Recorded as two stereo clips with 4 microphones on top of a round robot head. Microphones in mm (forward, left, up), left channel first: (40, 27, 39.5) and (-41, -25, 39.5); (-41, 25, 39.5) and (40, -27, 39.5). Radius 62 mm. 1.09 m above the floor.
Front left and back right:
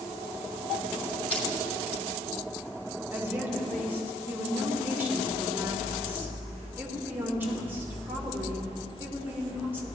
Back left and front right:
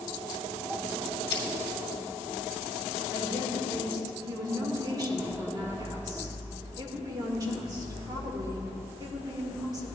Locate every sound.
1.3 s crushing: 105° left, 1.8 m
3.1 s a woman speaking: 80° right, 1.8 m